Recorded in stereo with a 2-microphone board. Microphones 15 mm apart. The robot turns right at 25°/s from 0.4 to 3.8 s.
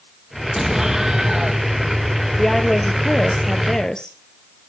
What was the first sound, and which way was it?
An explosion, 25° right (ahead or behind).